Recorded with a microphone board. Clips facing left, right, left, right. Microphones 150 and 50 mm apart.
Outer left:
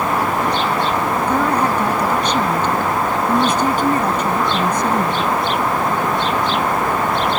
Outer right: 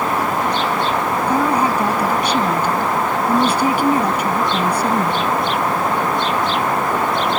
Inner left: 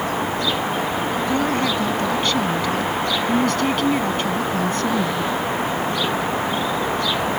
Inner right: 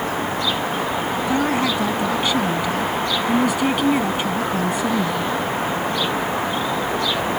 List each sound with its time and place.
1.3 s a woman speaking: 10° right (ahead or behind)